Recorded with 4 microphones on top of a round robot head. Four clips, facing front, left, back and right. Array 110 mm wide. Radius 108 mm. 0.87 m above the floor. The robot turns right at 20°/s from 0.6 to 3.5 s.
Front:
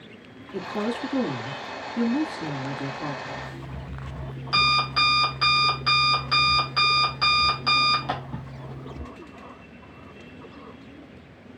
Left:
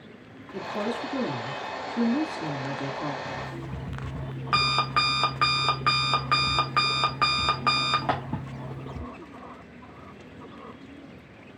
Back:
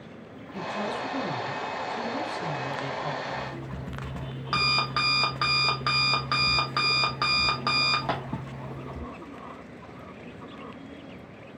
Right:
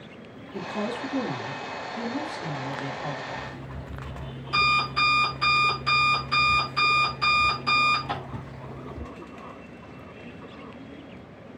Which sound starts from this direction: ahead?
A woman speaking, at 0.5 s.